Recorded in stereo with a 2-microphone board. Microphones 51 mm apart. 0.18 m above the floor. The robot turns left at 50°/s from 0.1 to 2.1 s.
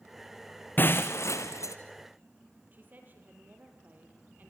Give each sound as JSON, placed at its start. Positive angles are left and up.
{"t": 0.8, "sound": "breaking glass", "azimuth_deg": 140, "distance_m": 1.6}
{"t": 2.7, "sound": "a woman speaking", "side_deg": -35, "distance_m": 6.0}